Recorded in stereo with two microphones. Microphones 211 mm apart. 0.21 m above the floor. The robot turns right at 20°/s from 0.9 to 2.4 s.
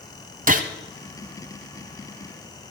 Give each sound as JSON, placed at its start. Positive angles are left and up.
{"t": 0.5, "sound": "a gunshot", "side_deg": -40, "distance_m": 1.2}